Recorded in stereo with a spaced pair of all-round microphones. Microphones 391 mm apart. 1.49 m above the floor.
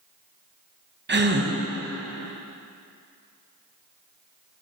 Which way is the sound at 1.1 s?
30° right (ahead or behind).